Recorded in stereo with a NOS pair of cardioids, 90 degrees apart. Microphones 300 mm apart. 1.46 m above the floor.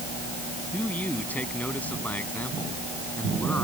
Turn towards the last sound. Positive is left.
turn(degrees=5)